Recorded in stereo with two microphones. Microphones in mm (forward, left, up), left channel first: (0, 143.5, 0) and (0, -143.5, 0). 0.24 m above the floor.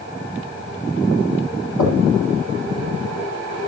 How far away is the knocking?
About 8 m.